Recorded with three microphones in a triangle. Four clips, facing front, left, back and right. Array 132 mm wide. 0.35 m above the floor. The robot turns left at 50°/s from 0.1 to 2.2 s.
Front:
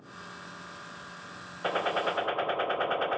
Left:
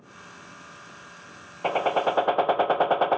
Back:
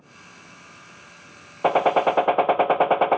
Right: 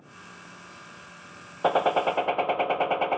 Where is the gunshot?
165° right, 0.6 m; by 3.2 s 165° left, 0.6 m.